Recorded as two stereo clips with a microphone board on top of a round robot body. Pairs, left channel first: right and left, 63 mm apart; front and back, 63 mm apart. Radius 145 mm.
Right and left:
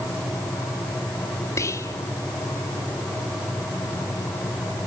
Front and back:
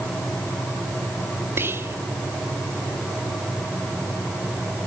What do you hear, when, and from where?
1.6 s whispering: 130° right, 2 m